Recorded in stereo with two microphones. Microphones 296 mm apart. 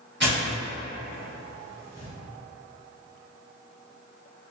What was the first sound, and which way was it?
Tearing paper, 40° right (ahead or behind).